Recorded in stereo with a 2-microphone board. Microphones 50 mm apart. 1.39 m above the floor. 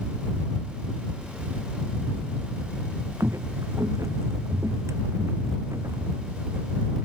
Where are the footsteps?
70° right (ahead or behind).